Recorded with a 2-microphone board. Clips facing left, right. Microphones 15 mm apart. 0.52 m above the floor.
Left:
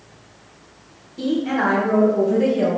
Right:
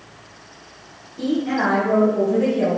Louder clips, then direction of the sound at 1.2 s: Even; 35° left (ahead or behind).